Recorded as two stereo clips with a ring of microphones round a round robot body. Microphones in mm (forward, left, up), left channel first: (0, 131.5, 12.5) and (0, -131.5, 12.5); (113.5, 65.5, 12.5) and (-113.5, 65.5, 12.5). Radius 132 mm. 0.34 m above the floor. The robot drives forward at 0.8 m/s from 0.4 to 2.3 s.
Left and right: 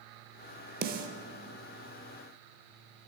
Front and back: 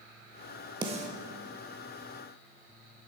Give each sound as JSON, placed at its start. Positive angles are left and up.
{"t": 0.8, "sound": "a snare drum", "azimuth_deg": -120, "distance_m": 0.7}